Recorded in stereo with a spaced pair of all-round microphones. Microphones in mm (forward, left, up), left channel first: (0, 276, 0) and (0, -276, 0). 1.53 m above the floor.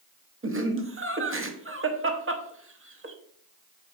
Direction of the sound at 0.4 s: 25° right (ahead or behind).